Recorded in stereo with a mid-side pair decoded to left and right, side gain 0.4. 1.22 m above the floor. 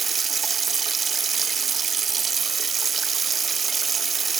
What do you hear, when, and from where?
0.0 s running water: 45° right, 1.2 m